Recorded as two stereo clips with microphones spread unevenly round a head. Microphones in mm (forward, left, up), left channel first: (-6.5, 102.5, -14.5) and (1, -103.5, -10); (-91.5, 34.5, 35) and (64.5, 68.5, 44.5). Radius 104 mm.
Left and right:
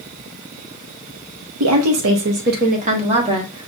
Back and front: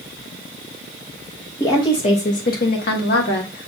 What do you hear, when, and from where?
1.6 s a woman speaking: 90° right, 0.7 m; by 3.7 s 160° right, 1.3 m